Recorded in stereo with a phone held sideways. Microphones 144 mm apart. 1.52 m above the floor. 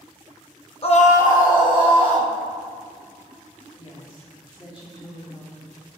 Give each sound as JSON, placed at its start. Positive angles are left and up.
{"t": 0.8, "sound": "a scream", "side_deg": 45, "distance_m": 0.7}
{"t": 3.8, "sound": "a woman speaking", "side_deg": 40, "distance_m": 3.0}